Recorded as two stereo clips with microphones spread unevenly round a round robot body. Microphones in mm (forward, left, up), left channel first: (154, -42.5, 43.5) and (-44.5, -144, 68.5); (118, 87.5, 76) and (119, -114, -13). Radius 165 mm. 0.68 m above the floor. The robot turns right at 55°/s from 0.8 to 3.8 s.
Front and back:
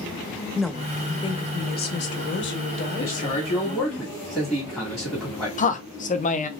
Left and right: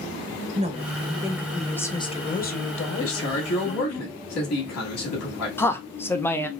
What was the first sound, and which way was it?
A woman speaking, 60° right.